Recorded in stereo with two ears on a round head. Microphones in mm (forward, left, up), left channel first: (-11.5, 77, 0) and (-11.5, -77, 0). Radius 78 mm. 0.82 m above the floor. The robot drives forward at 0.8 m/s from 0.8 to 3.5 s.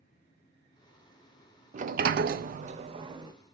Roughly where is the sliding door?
Right.